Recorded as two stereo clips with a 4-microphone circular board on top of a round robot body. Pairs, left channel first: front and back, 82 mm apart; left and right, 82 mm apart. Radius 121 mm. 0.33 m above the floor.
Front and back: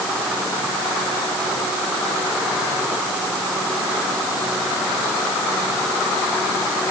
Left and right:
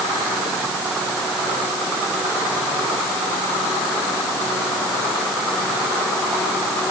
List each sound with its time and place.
Only background noise.